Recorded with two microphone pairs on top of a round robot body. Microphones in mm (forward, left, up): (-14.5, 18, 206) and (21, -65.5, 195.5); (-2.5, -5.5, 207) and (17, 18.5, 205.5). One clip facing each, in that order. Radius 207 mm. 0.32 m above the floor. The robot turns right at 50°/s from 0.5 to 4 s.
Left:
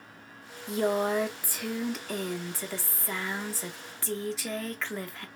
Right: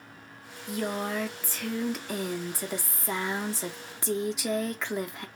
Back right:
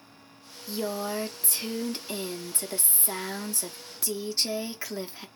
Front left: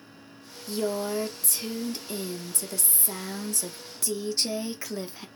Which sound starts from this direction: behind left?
A woman speaking, at 0.7 s.